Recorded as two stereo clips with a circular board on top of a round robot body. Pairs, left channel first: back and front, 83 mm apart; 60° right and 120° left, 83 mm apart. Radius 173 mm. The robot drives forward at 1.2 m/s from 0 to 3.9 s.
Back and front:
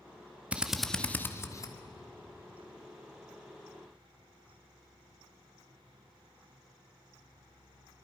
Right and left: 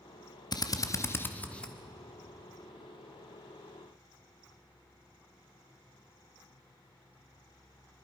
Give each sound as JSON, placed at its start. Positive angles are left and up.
{"t": 0.5, "sound": "a drill", "azimuth_deg": -70, "distance_m": 1.3}